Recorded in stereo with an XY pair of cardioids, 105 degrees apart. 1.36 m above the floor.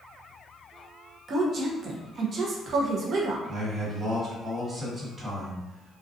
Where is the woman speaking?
50° right, 0.6 m.